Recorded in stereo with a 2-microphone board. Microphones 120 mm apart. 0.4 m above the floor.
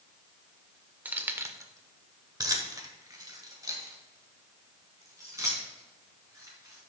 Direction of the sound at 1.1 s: 15° right (ahead or behind).